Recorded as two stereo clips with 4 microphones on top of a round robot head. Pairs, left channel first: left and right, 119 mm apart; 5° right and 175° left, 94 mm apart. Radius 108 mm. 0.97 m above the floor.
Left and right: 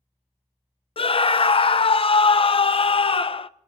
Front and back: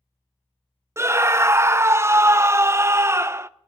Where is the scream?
115° left, 0.6 m.